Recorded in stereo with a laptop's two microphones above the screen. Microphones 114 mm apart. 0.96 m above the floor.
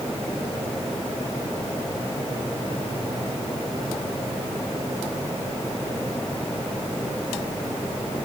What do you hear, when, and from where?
Only background noise.